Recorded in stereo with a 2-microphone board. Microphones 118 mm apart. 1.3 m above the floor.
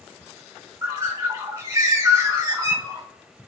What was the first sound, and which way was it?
A bird, 25° right (ahead or behind).